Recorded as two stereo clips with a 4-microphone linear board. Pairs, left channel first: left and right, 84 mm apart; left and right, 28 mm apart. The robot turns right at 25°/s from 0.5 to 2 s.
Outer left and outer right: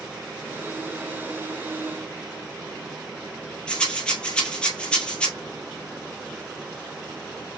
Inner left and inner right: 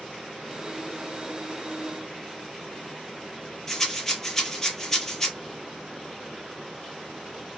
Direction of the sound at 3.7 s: 10° left (ahead or behind).